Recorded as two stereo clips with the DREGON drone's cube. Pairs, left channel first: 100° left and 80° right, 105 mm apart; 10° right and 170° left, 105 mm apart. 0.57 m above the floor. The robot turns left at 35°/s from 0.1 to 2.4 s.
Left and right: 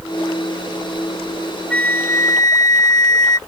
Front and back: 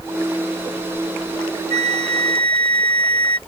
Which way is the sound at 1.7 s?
175° left.